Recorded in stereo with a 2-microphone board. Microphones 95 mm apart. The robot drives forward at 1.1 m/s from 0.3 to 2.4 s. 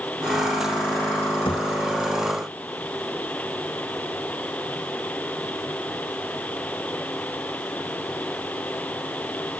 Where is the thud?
65° left (ahead or behind).